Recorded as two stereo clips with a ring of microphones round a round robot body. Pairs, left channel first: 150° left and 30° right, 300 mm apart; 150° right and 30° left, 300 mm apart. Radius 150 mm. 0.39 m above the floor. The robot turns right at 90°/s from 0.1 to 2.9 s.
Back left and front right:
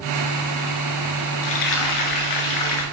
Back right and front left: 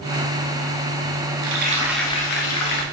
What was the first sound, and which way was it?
Frying, 70° left.